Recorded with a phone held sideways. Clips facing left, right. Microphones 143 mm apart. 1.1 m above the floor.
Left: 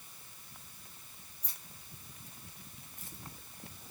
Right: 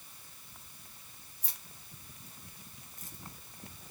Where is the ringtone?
I don't hear a ringtone.